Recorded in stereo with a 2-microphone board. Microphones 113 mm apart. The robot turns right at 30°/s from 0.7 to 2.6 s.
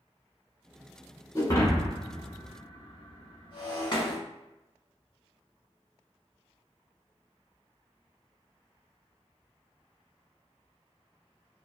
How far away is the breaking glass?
About 0.9 m.